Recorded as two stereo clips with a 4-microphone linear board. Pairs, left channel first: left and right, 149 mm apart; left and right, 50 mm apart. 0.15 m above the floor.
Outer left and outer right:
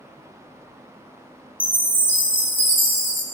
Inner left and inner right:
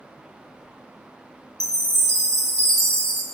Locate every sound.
1.6 s a chime: 15° left (ahead or behind), 0.6 m